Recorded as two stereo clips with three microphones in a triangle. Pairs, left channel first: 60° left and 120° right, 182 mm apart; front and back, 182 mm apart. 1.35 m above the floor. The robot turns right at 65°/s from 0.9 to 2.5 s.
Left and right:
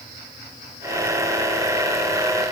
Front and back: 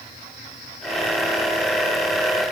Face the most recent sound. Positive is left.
No sound to turn to.